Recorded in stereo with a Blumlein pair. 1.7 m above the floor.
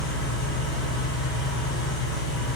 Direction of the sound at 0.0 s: 20° left.